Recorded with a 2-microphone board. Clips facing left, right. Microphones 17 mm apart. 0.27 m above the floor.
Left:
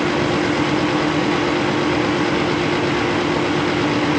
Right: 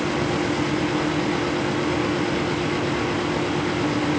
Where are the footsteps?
I don't hear footsteps.